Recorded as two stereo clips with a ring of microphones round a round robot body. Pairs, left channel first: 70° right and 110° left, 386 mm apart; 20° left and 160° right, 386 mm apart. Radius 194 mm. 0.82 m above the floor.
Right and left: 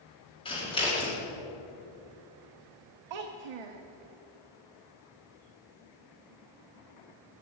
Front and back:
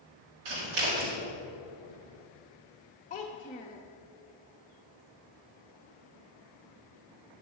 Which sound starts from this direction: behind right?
Scissors, at 0.5 s.